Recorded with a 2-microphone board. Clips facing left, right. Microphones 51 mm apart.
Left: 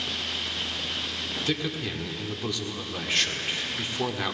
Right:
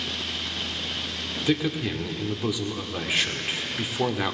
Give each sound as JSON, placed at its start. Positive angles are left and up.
{"t": 1.5, "sound": "a man speaking", "side_deg": -10, "distance_m": 1.0}